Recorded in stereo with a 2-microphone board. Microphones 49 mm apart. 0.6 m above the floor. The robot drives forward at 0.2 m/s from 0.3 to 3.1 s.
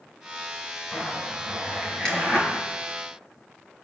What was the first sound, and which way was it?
A zipper, 15° left (ahead or behind).